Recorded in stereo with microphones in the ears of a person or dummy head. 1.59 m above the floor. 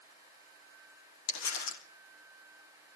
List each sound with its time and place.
1.3 s crumpling: 80° left, 3 m